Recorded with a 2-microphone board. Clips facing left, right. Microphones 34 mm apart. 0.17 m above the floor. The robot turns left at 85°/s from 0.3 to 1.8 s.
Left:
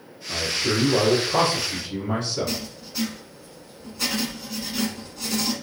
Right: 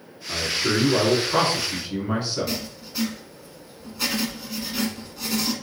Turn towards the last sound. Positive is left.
turn(degrees=-10)  # may be behind; listen again after turning